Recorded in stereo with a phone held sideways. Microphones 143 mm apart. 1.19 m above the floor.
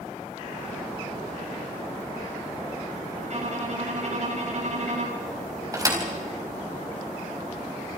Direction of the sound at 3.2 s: 55° right (ahead or behind).